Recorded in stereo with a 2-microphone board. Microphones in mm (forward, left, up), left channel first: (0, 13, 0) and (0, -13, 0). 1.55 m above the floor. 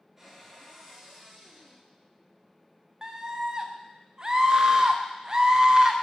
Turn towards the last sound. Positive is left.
turn(degrees=-30)  # may be behind; listen again after turning